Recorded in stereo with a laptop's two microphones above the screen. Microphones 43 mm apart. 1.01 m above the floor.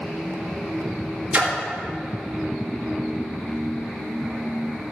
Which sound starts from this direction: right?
A splash, at 1.3 s.